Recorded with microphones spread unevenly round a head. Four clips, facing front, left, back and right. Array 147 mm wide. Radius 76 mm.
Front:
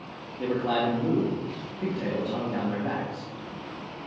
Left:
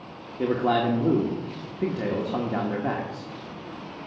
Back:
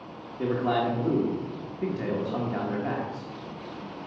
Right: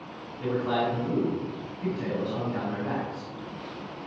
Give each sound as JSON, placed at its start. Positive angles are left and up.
{"t": 0.4, "sound": "a man speaking", "azimuth_deg": 95, "distance_m": 1.5}